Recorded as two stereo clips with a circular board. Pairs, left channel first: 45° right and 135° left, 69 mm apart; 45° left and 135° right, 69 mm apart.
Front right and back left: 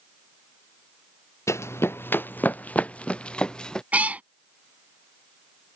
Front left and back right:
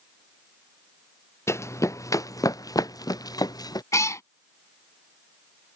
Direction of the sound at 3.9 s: 70° left.